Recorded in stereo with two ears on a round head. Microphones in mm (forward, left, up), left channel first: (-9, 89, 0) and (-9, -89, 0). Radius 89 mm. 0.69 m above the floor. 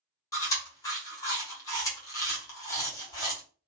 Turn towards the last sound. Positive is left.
turn(degrees=15)  # may be behind; listen again after turning